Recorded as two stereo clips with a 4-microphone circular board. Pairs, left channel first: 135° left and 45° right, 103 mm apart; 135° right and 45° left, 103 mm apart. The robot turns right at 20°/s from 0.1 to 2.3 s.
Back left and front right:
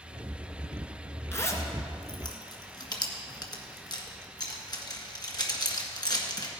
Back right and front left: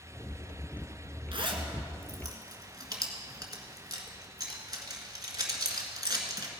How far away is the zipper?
About 1.5 m.